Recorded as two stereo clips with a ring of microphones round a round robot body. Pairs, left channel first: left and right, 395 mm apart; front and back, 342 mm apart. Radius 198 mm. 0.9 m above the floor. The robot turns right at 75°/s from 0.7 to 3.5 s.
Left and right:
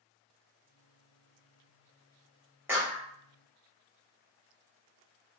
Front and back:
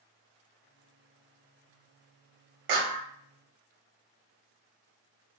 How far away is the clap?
About 0.8 m.